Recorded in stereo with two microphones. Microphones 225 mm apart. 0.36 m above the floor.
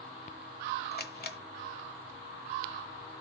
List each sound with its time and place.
0.9 s a camera shutter: 50° left (ahead or behind), 1.1 m